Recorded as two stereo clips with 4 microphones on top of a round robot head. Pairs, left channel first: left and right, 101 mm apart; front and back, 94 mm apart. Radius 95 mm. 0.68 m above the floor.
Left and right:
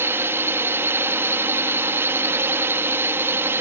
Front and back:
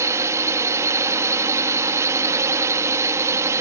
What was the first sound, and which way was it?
A drone, 145° right.